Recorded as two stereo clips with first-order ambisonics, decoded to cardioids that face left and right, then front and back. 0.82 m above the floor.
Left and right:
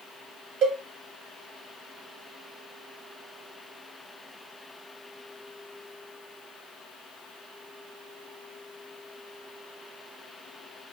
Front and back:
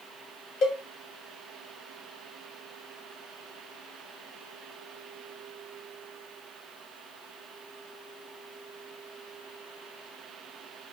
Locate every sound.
0.6 s a cowbell: 40° right, 0.7 m